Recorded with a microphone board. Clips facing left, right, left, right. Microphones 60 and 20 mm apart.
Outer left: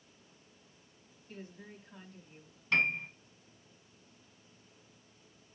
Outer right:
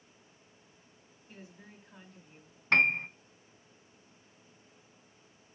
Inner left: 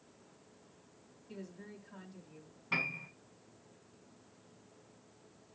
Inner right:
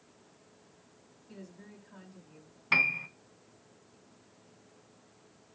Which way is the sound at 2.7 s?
55° right (ahead or behind).